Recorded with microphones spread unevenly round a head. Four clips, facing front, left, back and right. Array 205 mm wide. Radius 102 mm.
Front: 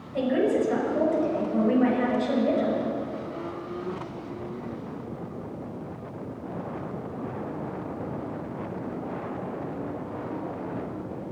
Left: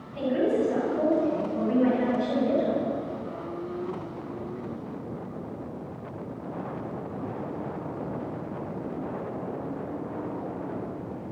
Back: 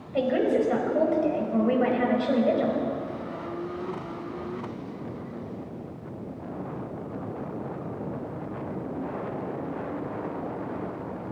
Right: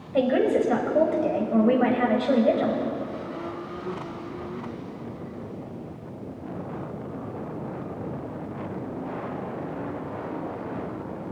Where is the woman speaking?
105° right, 6 m.